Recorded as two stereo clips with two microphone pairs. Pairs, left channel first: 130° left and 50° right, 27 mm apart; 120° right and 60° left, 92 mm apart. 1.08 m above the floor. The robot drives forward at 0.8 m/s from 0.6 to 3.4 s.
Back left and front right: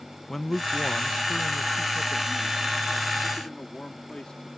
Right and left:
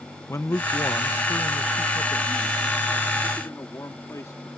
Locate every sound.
0.3 s a man speaking: 160° right; by 4.5 s 175° right